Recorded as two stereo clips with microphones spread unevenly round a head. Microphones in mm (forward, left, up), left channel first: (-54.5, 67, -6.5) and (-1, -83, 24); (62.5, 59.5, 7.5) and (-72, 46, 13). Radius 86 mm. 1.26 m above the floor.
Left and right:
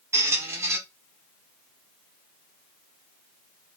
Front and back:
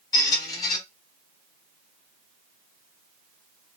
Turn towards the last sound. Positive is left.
turn(degrees=-35)